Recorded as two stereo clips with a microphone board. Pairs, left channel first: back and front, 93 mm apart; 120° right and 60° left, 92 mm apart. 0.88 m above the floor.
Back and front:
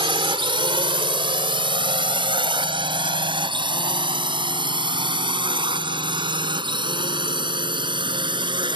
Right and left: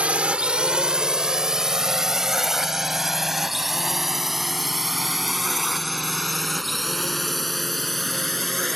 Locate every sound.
0.0 s a drone: 15° right; by 8.8 s 35° right